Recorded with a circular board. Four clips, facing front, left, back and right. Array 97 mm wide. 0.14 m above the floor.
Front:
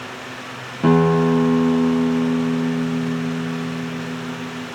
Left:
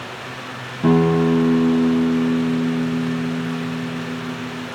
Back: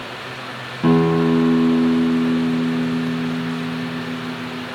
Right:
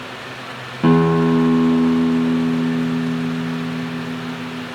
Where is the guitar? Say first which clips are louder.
Right 1 dB, even; 75° right, 0.8 m.